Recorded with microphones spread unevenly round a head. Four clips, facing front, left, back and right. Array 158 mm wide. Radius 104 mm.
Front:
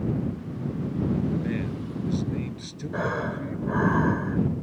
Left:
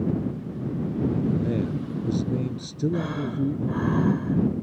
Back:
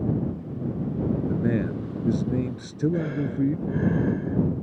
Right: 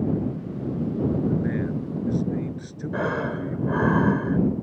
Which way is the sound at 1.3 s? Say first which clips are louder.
Even, back 4 dB; 165° left.